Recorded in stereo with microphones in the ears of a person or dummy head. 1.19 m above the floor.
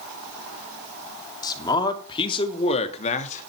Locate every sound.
1.4 s a man speaking: 20° left (ahead or behind), 2.5 m; by 3.5 s 40° left (ahead or behind), 1.9 m